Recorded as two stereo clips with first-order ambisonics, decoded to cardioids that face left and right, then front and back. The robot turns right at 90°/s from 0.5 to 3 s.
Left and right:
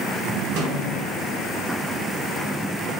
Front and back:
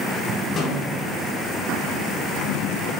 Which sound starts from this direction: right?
A snare drum, at 0.6 s.